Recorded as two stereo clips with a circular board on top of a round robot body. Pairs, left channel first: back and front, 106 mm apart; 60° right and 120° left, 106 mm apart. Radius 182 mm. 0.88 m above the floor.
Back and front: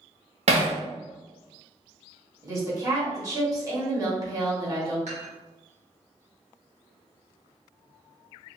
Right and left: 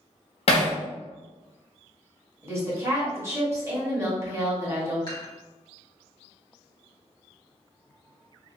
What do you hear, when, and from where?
0.5 s hammering: 25° right, 0.7 m
2.4 s a woman speaking: 55° left, 1.6 m
5.1 s dishes clattering: 10° right, 1.7 m